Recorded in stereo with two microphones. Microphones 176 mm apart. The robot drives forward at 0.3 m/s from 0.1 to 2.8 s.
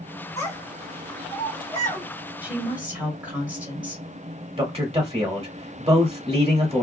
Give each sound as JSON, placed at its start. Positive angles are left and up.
{"t": 0.4, "sound": "a child speaking", "side_deg": 20, "distance_m": 1.3}
{"t": 2.4, "sound": "a woman speaking", "side_deg": -10, "distance_m": 1.5}
{"t": 4.6, "sound": "a man speaking", "side_deg": -35, "distance_m": 1.1}